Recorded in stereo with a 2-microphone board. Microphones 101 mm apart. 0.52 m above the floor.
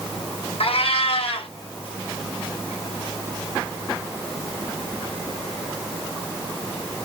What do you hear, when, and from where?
0.6 s a cat meowing: 70° left (ahead or behind), 1.1 m